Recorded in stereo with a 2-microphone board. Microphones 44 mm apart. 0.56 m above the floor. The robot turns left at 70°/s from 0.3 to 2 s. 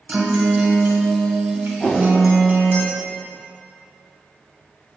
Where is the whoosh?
25° left (ahead or behind), 1.0 m; by 2.1 s 40° left (ahead or behind), 1.0 m.